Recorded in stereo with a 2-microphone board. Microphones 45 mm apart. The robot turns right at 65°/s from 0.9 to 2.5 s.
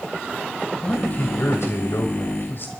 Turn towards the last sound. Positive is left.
turn(degrees=125)